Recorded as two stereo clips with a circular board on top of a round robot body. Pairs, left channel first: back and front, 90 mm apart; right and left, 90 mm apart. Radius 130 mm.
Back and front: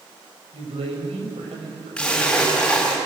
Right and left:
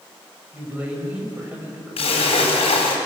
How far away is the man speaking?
About 7 m.